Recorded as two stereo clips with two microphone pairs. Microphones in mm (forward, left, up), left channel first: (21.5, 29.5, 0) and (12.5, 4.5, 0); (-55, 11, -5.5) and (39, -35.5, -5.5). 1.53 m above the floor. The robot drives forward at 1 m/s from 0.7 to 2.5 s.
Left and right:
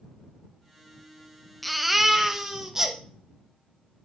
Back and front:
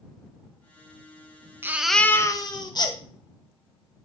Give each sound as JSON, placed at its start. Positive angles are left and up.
{"t": 1.6, "sound": "a baby crying", "azimuth_deg": -5, "distance_m": 0.6}